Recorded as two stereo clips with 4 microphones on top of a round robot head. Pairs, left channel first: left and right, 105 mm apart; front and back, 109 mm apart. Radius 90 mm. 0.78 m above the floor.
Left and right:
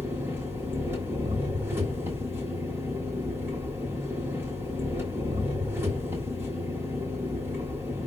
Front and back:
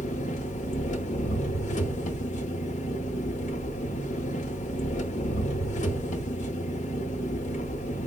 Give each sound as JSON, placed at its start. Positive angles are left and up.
{"t": 0.0, "sound": "an engine running", "azimuth_deg": -15, "distance_m": 0.9}